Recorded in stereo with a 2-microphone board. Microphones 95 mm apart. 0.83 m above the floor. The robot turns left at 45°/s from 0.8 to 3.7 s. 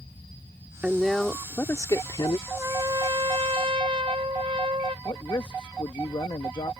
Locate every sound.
0.8 s a woman speaking: 170° right; by 2.4 s 120° left
2.5 s a trumpet: 25° right; by 5.0 s 80° right
5.0 s a man speaking: 60° left (ahead or behind)